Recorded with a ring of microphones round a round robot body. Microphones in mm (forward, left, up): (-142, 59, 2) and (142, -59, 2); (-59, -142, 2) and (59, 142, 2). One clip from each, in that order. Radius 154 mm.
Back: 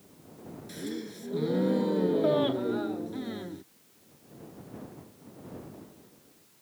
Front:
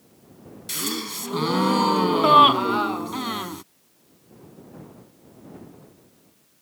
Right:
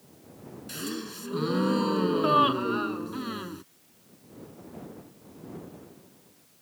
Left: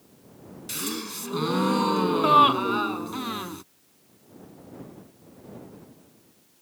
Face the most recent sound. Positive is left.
turn(degrees=0)